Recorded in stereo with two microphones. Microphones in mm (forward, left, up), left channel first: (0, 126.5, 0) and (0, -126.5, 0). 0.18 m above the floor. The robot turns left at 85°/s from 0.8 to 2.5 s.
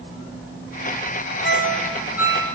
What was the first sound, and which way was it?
A ringtone, 50° left (ahead or behind).